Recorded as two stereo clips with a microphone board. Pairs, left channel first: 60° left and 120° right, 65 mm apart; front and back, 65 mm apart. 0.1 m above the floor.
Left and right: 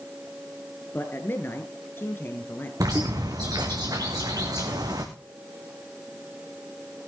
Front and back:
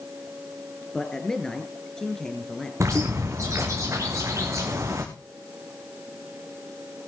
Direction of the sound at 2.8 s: 135° right.